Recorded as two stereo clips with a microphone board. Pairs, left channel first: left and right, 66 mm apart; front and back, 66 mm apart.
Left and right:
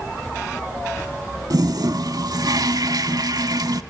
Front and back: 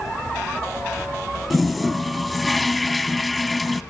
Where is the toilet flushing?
90° right, 0.5 m.